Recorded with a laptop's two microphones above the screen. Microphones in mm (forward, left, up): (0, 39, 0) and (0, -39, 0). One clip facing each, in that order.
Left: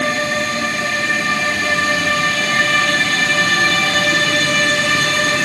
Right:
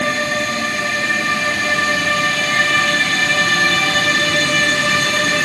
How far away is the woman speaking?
No woman speaking in this recording.